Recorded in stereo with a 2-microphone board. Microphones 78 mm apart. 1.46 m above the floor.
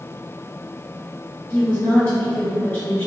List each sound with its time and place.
1.5 s a woman speaking: 25° left (ahead or behind), 2.0 m